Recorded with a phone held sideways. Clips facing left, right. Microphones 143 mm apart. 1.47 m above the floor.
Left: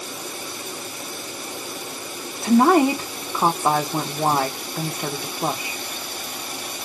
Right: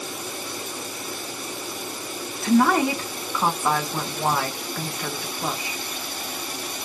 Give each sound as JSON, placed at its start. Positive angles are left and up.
{"t": 2.4, "sound": "a woman speaking", "side_deg": 30, "distance_m": 0.5}